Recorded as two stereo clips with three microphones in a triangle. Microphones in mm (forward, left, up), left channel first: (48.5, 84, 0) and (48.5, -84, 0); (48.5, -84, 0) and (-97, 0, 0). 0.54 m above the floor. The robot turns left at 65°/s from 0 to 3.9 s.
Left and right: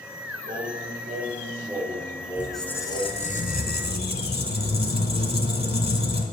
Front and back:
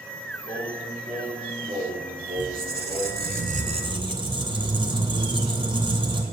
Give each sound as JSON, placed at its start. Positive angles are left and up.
{"t": 0.5, "sound": "singing", "azimuth_deg": -80, "distance_m": 5.5}
{"t": 2.4, "sound": "a squeak", "azimuth_deg": -170, "distance_m": 1.5}